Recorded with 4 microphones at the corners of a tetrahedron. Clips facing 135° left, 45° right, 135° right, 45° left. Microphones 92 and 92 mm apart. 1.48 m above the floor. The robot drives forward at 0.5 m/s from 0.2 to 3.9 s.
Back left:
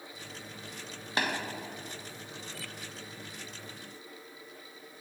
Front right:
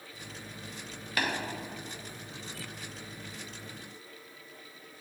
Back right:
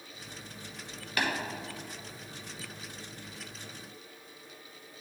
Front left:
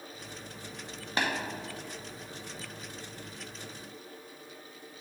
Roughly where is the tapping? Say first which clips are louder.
Even, front left 1 dB; left.